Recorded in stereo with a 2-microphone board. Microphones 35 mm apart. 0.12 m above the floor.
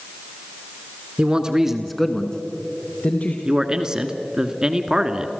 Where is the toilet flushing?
I don't hear a toilet flushing.